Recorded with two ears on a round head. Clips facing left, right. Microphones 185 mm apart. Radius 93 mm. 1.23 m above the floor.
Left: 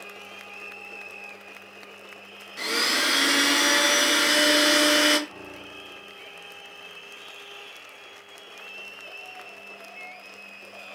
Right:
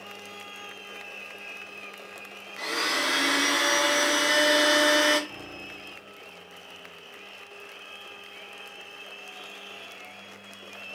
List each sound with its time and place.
2.6 s a blender: 30° left (ahead or behind), 0.6 m
5.3 s a piano: 5° right (ahead or behind), 2.5 m